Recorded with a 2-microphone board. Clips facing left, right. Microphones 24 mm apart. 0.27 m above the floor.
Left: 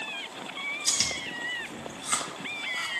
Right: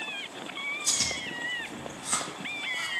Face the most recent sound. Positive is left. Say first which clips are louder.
# left 2 dB
turn(degrees=45)  # may be behind; listen again after turning